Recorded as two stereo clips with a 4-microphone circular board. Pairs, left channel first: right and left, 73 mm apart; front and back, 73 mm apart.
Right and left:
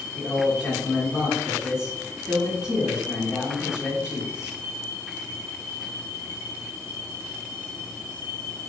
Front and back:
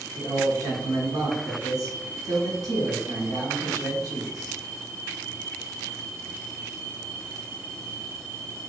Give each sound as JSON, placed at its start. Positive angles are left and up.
{"t": 0.1, "sound": "a man speaking", "azimuth_deg": 170, "distance_m": 1.5}